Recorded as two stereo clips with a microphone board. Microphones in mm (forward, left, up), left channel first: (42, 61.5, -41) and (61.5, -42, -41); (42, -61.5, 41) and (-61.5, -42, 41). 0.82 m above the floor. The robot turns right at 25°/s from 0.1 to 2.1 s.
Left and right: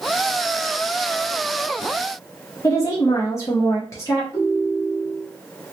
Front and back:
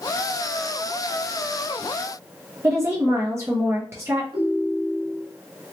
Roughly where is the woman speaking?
Behind left.